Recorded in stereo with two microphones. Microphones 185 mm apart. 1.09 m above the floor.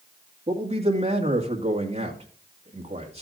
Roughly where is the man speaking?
Right.